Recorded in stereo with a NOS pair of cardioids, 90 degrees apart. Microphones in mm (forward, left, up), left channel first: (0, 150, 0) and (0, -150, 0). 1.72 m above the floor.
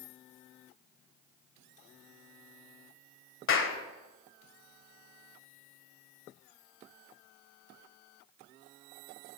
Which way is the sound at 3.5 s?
45° left.